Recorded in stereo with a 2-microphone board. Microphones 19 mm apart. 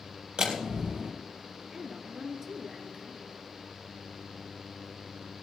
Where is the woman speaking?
30° right (ahead or behind), 2.5 m.